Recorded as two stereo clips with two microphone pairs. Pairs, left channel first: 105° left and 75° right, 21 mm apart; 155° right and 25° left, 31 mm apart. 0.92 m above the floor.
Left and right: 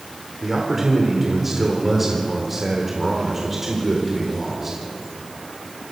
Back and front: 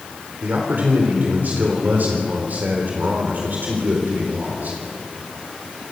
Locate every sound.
0.4 s a man speaking: 5° left, 3.5 m